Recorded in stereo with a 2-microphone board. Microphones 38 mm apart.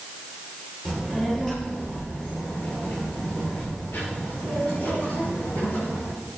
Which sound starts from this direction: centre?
A child speaking, at 0.8 s.